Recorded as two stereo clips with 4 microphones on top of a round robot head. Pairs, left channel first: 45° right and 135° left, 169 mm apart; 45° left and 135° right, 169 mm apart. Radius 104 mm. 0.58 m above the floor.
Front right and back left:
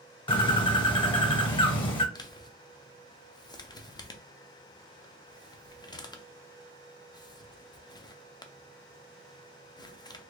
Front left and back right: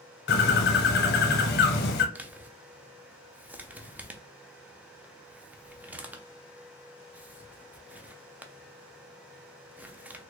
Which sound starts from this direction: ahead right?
A man speaking, at 2.1 s.